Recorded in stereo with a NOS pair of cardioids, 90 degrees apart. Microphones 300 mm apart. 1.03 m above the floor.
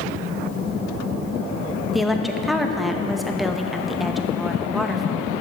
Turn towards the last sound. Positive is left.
turn(degrees=0)